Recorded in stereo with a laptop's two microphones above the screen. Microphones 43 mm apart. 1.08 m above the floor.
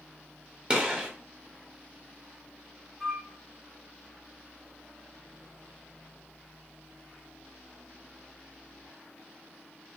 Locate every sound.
0.7 s a gunshot: 25° right (ahead or behind), 0.7 m
3.0 s a flute: centre (ahead or behind), 0.6 m